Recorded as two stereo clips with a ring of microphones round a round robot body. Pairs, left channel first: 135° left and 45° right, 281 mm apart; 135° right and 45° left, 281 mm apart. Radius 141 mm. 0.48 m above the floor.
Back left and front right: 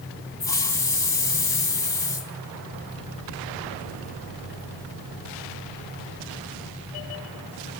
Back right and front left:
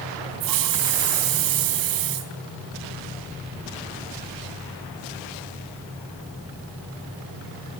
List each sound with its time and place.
0.4 s a hiss: 55° left, 3 m